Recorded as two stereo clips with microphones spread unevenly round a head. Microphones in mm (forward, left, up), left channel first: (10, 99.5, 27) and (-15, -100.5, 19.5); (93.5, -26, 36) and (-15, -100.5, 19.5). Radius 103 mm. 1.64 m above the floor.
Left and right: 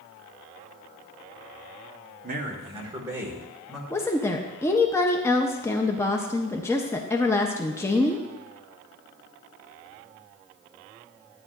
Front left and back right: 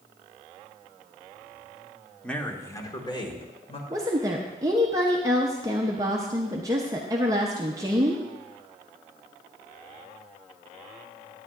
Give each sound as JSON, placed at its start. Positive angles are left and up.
{"t": 2.2, "sound": "a man speaking", "azimuth_deg": -50, "distance_m": 1.4}
{"t": 3.9, "sound": "a woman speaking", "azimuth_deg": 145, "distance_m": 0.6}